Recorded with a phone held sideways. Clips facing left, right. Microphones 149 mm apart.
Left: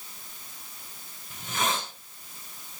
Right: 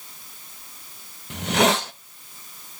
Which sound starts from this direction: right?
A hiss, at 1.3 s.